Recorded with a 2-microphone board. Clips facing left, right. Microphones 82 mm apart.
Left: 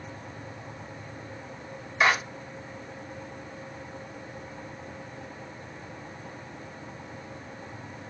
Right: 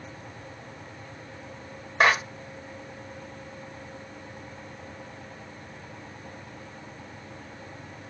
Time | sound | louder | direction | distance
2.0 | a clap | right 2 dB | 60° right (ahead or behind) | 1.4 m